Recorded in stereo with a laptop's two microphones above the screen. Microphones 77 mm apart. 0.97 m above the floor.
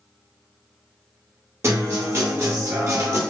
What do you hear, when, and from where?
1.6 s a guitar: 35° right (ahead or behind), 0.6 m